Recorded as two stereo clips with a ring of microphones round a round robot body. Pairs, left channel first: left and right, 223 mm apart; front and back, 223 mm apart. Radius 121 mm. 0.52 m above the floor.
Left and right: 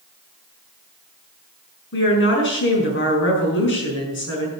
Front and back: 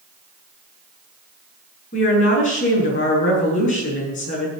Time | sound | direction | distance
1.9 | a woman speaking | 60° left | 6 m